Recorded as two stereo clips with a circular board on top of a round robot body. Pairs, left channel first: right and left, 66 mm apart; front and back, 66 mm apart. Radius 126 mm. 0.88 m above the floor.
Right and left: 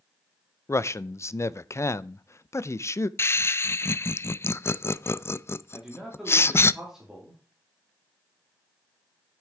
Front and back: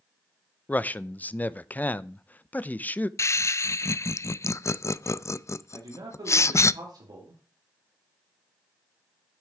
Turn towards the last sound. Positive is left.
turn(degrees=175)